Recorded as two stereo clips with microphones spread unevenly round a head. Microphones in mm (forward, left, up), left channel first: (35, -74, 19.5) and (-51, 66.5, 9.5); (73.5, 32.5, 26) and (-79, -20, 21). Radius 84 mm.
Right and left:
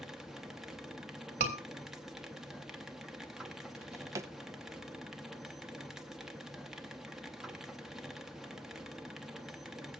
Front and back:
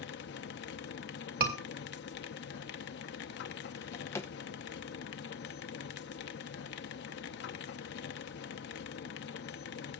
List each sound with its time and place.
0.0 s a machine running: 35° left, 0.8 m
1.4 s a scream: 165° left, 3 m
3.8 s a drawer: 65° left, 0.5 m